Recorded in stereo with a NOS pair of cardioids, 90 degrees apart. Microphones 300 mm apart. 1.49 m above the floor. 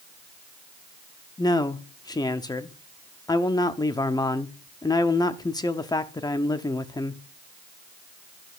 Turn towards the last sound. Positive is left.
turn(degrees=15)